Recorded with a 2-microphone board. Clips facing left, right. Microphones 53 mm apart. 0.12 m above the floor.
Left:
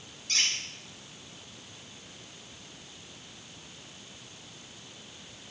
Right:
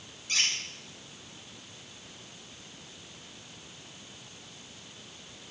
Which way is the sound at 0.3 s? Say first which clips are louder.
Even; 15° right (ahead or behind).